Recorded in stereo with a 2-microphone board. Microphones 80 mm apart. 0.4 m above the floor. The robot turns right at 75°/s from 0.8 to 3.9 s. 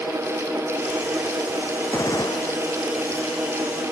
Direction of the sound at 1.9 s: 30° left.